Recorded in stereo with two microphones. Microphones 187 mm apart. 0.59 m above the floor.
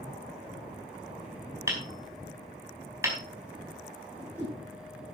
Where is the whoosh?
10° right (ahead or behind), 6.5 m.